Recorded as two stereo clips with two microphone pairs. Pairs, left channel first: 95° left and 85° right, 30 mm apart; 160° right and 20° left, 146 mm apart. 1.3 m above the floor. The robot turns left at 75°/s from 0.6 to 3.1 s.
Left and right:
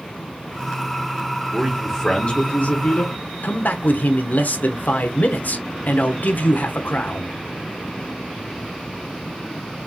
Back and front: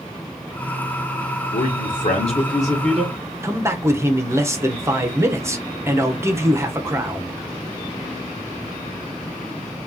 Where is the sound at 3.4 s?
90° left, 0.9 m.